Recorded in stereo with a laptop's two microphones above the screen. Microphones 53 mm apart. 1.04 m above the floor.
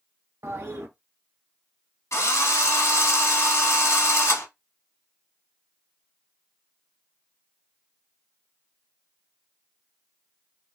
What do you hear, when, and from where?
0.4 s a toilet flushing: 55° right (ahead or behind), 0.6 m
2.1 s a drill: 65° left (ahead or behind), 1.0 m